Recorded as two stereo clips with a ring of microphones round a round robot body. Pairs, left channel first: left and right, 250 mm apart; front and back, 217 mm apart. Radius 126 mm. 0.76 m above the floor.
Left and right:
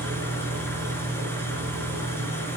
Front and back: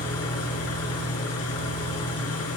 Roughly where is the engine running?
Ahead.